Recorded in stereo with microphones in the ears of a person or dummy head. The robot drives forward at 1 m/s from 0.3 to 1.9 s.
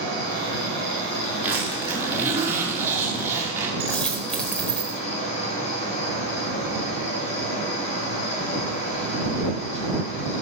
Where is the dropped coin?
5° left (ahead or behind), 1.5 m.